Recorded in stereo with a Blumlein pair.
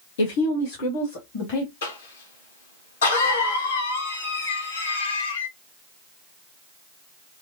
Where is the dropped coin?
I don't hear a dropped coin.